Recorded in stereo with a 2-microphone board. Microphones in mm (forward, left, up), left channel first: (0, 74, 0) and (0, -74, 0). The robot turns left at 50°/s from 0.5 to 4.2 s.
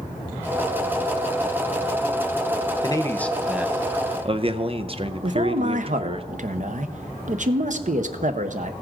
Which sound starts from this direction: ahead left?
A man speaking, at 2.8 s.